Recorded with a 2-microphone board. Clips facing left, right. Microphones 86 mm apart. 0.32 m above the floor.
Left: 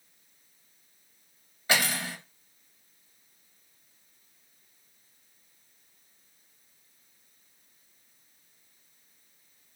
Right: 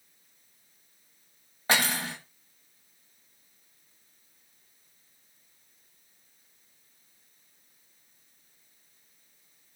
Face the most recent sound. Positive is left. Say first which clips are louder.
# right 1 dB
turn(degrees=-40)  # may be behind; listen again after turning